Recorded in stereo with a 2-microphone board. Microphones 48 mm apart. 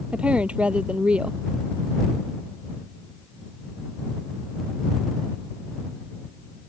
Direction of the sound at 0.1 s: 25° right (ahead or behind).